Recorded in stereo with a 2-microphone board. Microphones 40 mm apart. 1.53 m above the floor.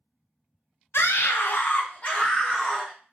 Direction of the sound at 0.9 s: 75° left (ahead or behind).